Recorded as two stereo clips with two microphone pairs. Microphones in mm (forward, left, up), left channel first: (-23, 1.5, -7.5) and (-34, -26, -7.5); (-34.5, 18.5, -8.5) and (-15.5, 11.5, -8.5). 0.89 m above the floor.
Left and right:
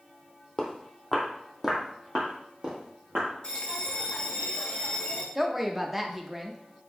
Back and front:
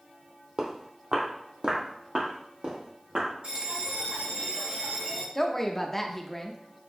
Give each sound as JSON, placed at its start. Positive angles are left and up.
{"t": 0.6, "sound": "footsteps", "azimuth_deg": -5, "distance_m": 1.2}
{"t": 3.4, "sound": "a bell", "azimuth_deg": 20, "distance_m": 0.9}
{"t": 5.3, "sound": "a woman speaking", "azimuth_deg": -175, "distance_m": 0.5}